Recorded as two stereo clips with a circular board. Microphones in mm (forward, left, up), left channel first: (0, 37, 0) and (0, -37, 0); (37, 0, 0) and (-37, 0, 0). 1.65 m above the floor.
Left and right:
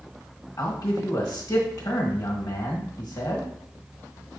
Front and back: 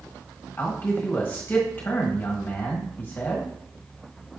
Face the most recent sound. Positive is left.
turn(degrees=60)